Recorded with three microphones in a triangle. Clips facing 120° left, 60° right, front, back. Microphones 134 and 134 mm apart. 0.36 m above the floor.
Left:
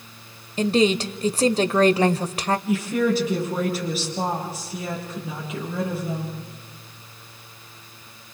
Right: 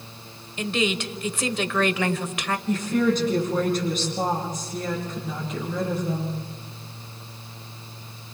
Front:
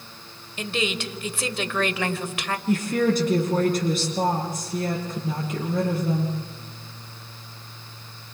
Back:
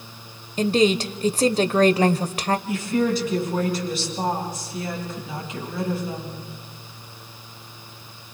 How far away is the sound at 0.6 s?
About 1.1 m.